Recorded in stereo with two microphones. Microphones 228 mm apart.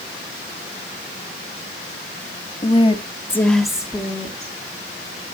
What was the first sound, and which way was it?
A woman speaking, 30° left (ahead or behind).